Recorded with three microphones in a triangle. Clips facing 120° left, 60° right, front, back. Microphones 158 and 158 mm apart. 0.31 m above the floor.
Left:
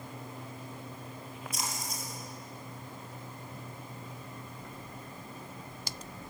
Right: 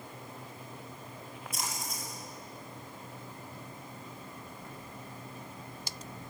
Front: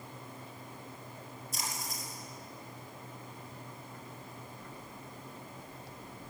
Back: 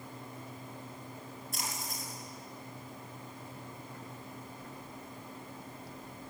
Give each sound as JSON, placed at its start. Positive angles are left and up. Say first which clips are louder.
{"t": 1.5, "sound": "a splash", "louder": "even, even", "azimuth_deg": -150, "distance_m": 7.0}